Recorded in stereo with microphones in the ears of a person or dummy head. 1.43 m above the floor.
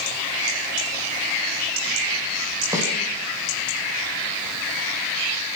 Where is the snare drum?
20° right (ahead or behind), 10 m.